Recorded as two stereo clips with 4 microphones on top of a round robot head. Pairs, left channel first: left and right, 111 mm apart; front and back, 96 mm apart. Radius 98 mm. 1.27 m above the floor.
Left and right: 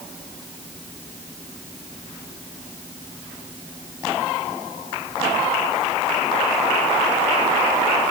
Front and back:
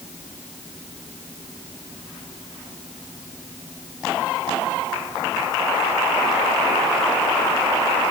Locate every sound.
Only background noise.